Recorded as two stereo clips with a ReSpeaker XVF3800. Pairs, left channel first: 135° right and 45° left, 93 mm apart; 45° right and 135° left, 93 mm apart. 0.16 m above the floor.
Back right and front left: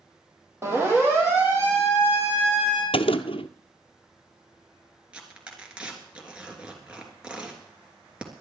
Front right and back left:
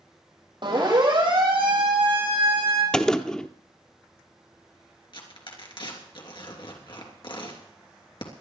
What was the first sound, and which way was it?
A siren, 105° left.